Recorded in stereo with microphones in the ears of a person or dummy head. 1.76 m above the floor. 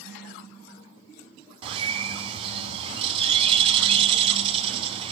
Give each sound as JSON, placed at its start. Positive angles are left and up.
{"t": 1.6, "sound": "a bird", "side_deg": -25, "distance_m": 3.5}